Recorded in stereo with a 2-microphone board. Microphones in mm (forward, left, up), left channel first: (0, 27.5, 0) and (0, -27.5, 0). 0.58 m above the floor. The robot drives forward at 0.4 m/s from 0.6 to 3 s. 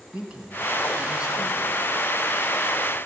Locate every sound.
0.1 s a man speaking: 15° right (ahead or behind), 4 m